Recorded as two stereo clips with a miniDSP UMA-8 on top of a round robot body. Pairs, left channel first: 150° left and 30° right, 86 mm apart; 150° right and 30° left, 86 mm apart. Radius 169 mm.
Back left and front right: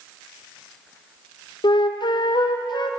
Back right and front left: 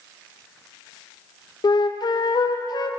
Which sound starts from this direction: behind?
A flute, at 1.6 s.